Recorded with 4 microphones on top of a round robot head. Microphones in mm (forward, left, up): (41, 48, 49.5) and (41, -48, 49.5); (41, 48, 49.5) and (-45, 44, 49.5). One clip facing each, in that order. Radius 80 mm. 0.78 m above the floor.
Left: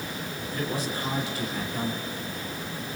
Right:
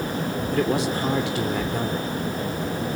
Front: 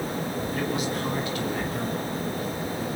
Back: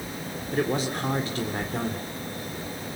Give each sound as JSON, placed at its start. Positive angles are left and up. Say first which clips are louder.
{"t": 0.5, "sound": "a man speaking", "louder": "right 8 dB, back 5 dB", "azimuth_deg": -115, "distance_m": 3.5}